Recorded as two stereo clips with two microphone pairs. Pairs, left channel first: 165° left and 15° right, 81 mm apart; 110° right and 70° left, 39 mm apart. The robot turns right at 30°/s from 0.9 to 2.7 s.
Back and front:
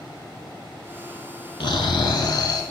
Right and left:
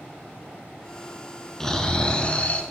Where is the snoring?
170° left, 0.8 m; by 2.6 s 160° right, 0.8 m.